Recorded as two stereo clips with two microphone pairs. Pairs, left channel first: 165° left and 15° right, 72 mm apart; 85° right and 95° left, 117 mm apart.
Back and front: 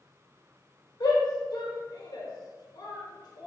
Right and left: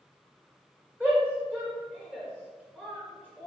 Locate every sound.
1.0 s a shout: 165° right, 1.7 m